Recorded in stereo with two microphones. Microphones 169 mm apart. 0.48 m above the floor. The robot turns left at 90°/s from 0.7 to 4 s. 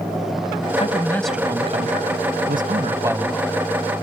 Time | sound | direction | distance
0.8 | a man speaking | 45° left | ?